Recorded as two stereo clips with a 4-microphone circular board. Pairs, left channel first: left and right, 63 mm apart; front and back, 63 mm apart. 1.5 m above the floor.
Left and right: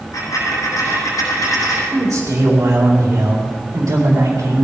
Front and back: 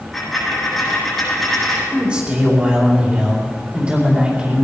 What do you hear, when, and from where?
0.1 s a dropped coin: 90° left, 7.5 m
1.9 s a man speaking: 115° right, 4 m